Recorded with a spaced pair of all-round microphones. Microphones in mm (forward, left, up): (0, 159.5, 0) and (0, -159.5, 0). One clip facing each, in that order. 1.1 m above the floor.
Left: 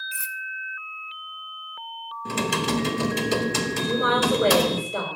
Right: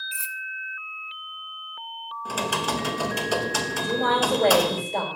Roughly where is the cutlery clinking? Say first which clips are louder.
Left 1 dB; left.